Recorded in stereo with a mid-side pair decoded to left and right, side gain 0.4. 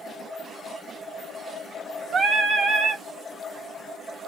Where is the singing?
50° right, 1.2 m.